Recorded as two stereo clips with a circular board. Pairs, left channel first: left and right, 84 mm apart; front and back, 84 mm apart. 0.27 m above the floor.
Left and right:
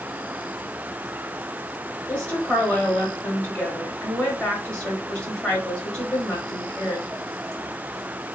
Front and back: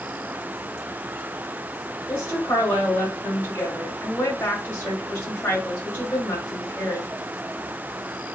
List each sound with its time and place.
2.1 s a woman speaking: 20° left, 1.3 m